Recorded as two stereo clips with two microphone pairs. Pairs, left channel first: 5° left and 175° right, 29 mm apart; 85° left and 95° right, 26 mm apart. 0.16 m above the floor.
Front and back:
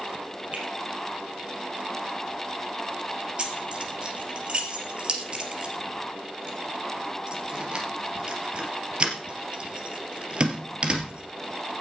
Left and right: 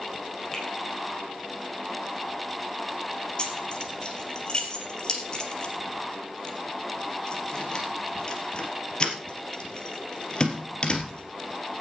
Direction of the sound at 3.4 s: 140° left.